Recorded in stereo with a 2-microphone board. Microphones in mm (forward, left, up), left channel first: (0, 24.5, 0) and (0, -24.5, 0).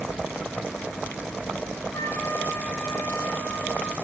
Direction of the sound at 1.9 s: 55° left (ahead or behind).